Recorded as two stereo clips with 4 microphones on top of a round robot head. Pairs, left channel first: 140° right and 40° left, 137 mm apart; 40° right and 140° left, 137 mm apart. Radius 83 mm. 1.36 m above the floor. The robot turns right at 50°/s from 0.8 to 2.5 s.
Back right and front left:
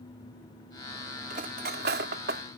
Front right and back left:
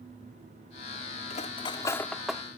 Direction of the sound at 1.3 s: Straight ahead.